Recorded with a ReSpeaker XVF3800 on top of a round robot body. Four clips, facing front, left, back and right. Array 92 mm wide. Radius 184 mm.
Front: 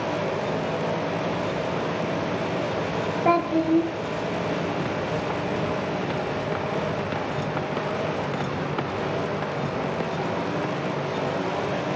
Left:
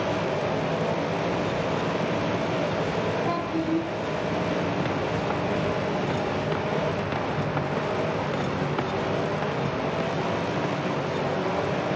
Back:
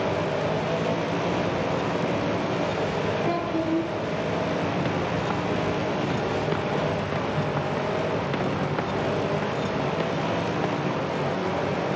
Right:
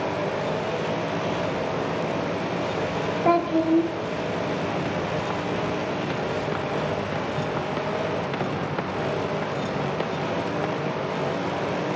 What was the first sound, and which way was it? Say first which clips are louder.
A child speaking: right 6 dB, front 4 dB; 40° right.